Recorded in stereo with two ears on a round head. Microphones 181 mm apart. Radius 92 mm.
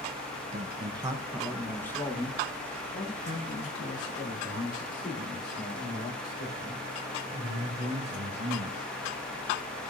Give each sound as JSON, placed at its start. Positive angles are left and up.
{"t": 0.5, "sound": "a man speaking", "side_deg": -35, "distance_m": 1.0}